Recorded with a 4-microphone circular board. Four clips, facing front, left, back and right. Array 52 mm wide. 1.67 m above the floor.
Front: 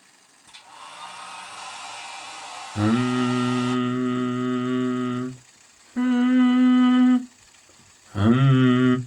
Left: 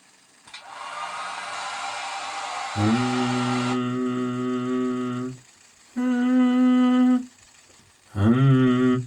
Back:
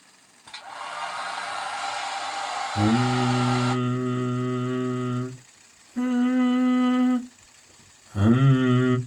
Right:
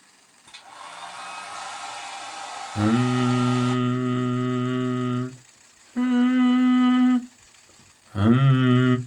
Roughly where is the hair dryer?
Behind left.